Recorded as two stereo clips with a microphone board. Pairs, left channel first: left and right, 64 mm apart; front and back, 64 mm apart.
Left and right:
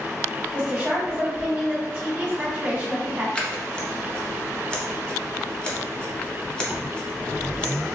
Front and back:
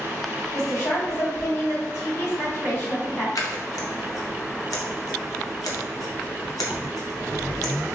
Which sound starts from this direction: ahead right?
A woman speaking, at 0.5 s.